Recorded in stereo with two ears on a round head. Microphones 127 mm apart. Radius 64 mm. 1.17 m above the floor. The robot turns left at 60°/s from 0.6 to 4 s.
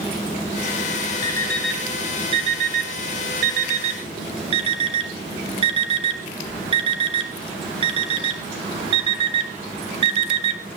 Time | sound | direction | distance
1.2 | an alarm clock | 25° left (ahead or behind) | 2.5 m